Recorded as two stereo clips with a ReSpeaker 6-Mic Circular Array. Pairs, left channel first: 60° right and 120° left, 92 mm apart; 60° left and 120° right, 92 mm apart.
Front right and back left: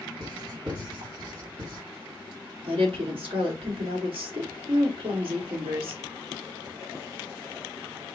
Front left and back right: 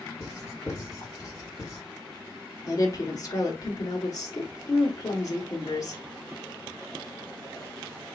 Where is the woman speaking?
110° left, 1.7 m.